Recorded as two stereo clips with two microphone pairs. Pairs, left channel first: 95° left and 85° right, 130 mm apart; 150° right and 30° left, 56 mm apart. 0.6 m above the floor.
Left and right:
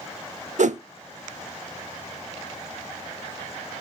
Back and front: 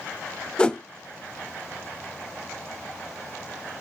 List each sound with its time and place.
0.6 s a whoosh: 80° right, 0.7 m